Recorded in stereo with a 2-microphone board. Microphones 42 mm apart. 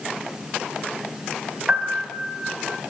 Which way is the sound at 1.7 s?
25° right (ahead or behind).